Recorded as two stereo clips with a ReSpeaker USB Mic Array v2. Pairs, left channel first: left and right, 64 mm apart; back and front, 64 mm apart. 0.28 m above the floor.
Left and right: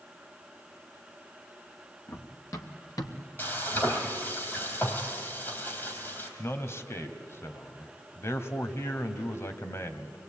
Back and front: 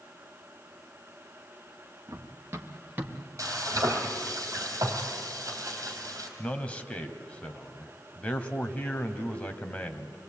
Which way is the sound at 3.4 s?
35° left.